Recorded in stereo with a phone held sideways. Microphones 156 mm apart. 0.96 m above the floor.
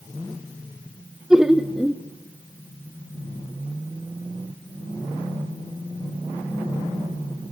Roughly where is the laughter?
Centre.